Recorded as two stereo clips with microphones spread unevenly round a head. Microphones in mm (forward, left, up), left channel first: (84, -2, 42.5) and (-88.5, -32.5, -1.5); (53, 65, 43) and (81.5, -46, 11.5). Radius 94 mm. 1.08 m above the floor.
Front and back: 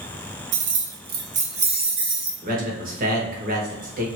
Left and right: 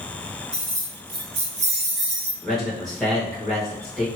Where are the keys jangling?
160° right, 0.6 m; by 2.3 s 100° right, 1.1 m.